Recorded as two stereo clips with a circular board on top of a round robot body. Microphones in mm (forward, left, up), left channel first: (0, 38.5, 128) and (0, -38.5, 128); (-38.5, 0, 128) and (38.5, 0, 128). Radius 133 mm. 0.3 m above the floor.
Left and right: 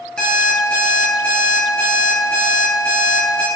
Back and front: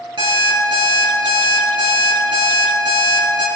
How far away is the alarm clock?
About 5.5 m.